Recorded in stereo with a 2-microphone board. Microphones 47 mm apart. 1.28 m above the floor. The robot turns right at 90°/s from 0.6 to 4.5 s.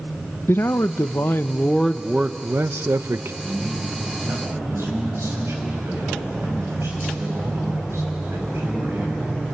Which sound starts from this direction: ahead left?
A man speaking, at 0.5 s.